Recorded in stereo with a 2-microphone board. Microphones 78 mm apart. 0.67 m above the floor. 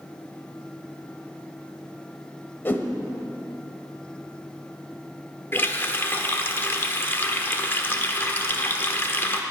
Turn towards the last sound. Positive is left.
turn(degrees=25)  # may be behind; listen again after turning